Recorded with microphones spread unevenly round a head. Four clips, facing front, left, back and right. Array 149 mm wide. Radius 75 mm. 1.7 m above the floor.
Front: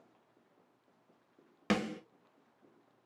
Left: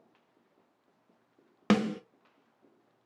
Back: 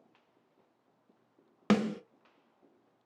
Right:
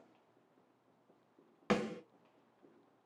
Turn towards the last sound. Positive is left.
turn(degrees=110)